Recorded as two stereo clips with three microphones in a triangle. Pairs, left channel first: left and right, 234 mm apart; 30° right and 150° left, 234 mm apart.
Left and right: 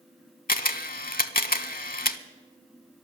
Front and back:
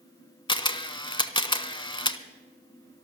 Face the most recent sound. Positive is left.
turn(degrees=35)